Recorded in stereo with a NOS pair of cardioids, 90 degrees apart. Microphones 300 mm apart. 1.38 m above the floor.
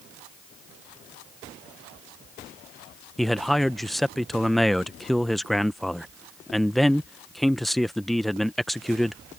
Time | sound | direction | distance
3.2 | a man speaking | straight ahead | ?